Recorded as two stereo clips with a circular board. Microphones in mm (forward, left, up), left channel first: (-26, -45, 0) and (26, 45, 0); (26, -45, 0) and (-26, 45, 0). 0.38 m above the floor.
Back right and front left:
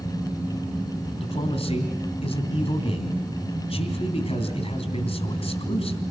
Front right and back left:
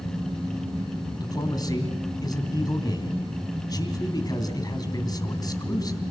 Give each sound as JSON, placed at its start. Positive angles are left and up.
{"t": 1.2, "sound": "a man speaking", "azimuth_deg": -110, "distance_m": 3.0}